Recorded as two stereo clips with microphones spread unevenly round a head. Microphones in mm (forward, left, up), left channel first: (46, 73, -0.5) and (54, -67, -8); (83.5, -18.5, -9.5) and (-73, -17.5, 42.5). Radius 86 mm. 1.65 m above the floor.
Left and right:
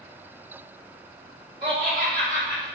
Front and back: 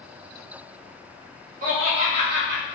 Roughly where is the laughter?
Behind right.